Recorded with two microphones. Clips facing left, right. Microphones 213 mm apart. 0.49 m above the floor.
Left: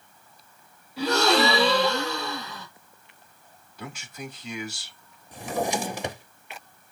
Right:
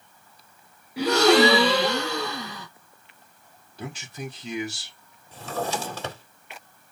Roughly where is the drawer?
Centre.